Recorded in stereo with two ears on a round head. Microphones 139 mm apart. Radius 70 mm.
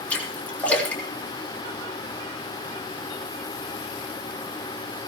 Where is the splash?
10° left (ahead or behind), 3.5 m.